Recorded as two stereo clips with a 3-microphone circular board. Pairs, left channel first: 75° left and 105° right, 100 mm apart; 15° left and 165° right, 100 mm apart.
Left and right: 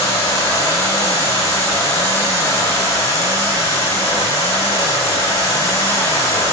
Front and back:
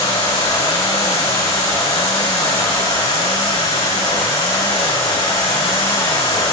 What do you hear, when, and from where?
0.0 s running water: 25° left, 4.5 m